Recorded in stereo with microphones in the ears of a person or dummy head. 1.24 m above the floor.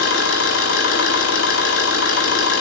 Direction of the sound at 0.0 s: 80° left.